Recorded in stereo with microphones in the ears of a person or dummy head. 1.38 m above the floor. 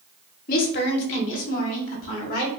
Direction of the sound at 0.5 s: 50° left (ahead or behind).